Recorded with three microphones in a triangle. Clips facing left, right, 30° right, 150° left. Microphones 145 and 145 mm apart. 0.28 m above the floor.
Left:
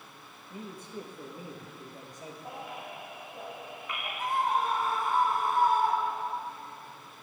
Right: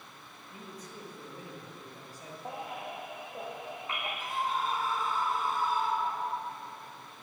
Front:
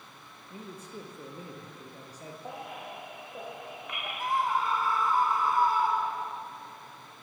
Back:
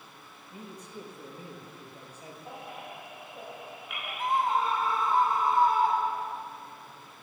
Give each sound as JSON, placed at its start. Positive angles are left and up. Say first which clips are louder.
{"t": 0.5, "sound": "a man speaking", "louder": "left 5 dB, front 1 dB", "azimuth_deg": 30, "distance_m": 6.0}
{"t": 2.5, "sound": "a baby crying", "louder": "right 4 dB, front 2 dB", "azimuth_deg": -30, "distance_m": 7.0}
{"t": 4.2, "sound": "a scream", "louder": "left 6 dB, back 2 dB", "azimuth_deg": 90, "distance_m": 2.5}